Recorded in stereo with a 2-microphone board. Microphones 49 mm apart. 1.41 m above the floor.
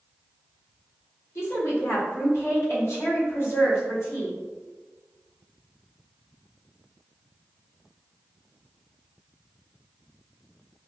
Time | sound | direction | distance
1.4 | a woman speaking | 60° left (ahead or behind) | 0.9 m